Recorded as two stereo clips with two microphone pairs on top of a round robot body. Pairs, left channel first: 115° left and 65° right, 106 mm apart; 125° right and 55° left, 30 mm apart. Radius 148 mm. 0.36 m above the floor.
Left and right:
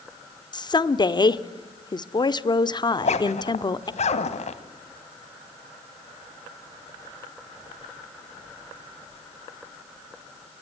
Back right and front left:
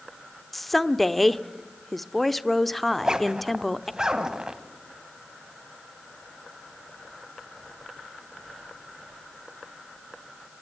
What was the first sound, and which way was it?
A woman speaking, 150° left.